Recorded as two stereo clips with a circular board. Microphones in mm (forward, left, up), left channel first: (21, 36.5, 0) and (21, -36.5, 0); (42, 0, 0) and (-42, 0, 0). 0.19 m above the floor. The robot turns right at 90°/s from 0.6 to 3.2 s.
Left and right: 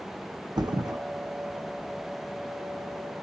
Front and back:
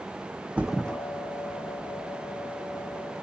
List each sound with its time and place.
0.6 s a thud: 105° right, 0.7 m; by 1.0 s 70° right, 0.7 m